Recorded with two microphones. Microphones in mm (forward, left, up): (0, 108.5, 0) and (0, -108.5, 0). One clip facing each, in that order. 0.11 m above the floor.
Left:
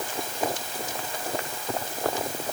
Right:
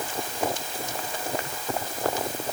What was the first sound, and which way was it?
Only background noise.